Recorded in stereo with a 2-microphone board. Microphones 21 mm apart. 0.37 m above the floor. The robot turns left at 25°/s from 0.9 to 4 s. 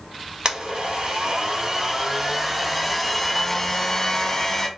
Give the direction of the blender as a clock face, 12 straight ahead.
4 o'clock.